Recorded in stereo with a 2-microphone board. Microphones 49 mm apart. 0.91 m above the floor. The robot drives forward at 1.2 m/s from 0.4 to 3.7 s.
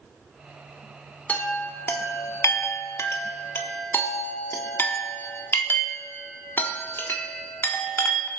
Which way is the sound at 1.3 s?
30° left (ahead or behind).